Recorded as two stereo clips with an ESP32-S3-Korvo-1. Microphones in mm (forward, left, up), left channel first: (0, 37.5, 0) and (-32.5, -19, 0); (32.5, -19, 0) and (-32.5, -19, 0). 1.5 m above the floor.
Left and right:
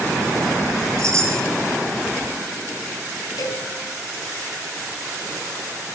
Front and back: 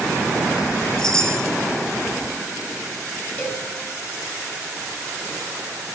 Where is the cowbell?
60° left, 4 m.